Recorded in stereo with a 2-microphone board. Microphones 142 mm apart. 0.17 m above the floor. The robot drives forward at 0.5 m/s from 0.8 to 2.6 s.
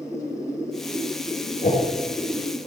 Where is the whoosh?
65° left (ahead or behind), 3 m.